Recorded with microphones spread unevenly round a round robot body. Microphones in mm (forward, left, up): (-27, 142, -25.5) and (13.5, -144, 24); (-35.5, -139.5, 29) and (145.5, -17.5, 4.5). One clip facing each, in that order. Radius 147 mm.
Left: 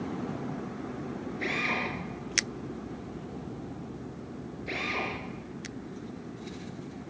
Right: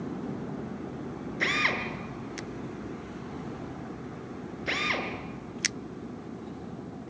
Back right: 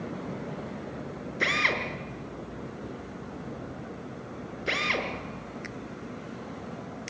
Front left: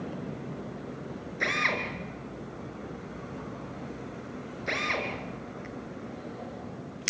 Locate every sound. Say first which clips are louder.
1.4 s a drill: right 1 dB, back right 2 dB; 95° right, 5 m